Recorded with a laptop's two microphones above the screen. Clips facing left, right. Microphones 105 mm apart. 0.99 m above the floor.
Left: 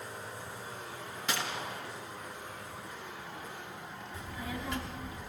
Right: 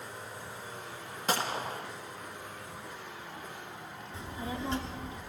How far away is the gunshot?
About 1.2 m.